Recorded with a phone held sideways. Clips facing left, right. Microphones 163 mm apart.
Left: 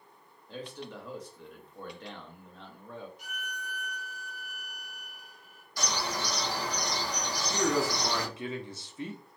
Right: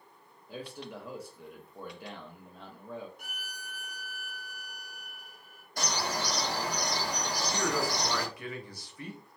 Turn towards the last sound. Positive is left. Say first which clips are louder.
# left 4 dB
turn(degrees=25)  # may be behind; listen again after turning